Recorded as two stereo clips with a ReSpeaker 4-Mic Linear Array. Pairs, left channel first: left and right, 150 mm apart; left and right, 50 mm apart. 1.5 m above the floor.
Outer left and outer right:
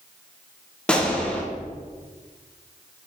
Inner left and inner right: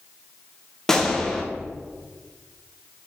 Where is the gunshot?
5° left (ahead or behind), 0.6 m.